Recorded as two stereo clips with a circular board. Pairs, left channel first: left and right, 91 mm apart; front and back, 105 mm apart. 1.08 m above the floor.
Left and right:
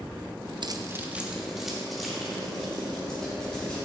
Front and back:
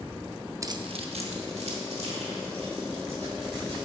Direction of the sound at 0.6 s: 120° right.